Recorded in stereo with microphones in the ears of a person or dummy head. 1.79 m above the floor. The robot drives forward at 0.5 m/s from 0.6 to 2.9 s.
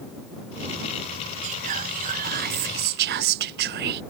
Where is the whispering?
40° right (ahead or behind); by 4.0 s 60° right (ahead or behind).